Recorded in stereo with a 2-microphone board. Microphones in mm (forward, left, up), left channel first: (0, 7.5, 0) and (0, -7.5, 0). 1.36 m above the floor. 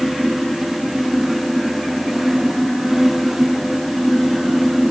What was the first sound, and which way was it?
Only background noise.